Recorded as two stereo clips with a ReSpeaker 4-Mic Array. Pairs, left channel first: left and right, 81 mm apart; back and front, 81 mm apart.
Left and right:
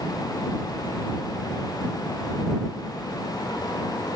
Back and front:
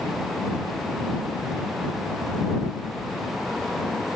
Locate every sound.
Only background noise.